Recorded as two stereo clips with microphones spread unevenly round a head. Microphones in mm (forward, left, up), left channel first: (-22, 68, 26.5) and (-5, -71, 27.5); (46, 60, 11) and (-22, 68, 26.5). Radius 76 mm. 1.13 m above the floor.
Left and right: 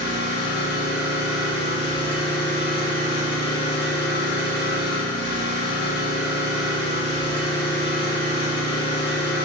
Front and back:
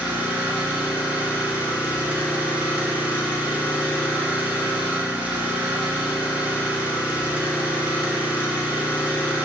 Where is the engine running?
105° left, 1.5 m.